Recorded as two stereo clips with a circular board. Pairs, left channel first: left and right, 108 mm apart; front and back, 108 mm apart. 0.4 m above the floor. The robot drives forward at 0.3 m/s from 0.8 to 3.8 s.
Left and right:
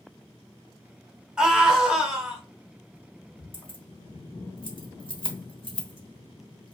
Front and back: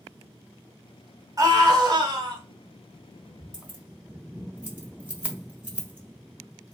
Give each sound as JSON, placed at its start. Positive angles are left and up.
{"t": 1.4, "sound": "a scream", "azimuth_deg": -165, "distance_m": 1.2}
{"t": 3.5, "sound": "keys jangling", "azimuth_deg": 105, "distance_m": 1.1}